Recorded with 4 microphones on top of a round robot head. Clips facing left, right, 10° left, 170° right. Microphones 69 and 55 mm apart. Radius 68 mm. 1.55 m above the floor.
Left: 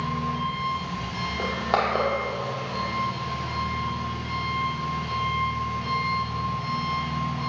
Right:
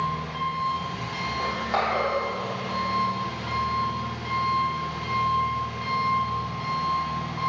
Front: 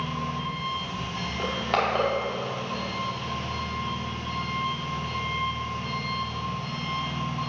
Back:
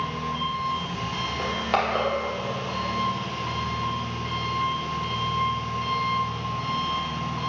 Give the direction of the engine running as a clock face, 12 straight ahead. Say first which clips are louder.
Even, back 2 dB; 5 o'clock.